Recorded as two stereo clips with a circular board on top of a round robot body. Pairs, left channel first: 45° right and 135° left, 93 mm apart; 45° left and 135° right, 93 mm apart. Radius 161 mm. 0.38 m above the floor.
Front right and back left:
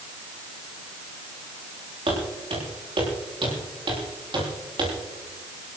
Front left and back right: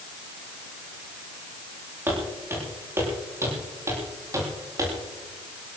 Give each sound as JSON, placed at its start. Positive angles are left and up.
{"t": 2.1, "sound": "footsteps", "azimuth_deg": 160, "distance_m": 8.0}